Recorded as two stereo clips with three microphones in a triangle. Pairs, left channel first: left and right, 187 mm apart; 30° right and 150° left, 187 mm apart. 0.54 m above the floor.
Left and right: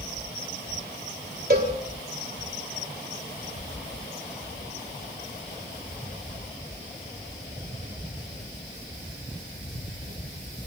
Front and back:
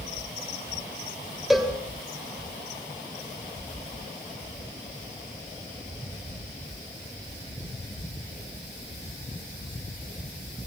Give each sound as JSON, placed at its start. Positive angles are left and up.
{"t": 1.5, "sound": "a cowbell", "azimuth_deg": -120, "distance_m": 2.5}